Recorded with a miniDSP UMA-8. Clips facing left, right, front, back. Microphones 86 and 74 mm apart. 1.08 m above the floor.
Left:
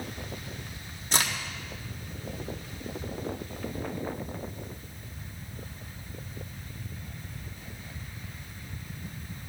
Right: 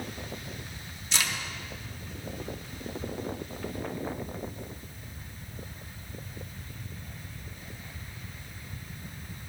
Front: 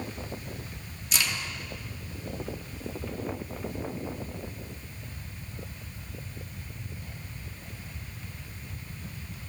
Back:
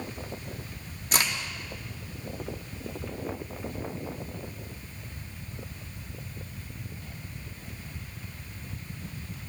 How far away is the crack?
About 1.4 m.